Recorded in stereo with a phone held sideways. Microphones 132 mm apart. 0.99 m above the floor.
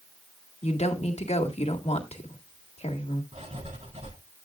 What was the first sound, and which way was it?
A woman speaking, 55° left (ahead or behind).